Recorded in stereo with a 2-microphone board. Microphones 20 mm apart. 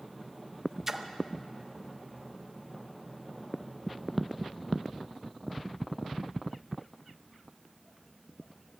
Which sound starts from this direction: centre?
A splash, at 0.9 s.